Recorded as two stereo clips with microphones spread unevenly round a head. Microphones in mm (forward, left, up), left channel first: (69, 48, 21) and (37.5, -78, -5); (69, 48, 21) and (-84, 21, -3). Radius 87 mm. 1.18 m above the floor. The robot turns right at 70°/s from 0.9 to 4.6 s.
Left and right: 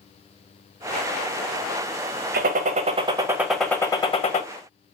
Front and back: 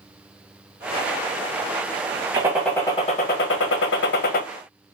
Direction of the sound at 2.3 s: 100° right.